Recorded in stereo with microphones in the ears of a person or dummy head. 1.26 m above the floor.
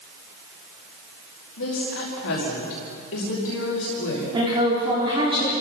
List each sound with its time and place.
1.6 s a woman speaking: 80° left, 5 m
4.3 s a woman speaking: 25° right (ahead or behind), 4 m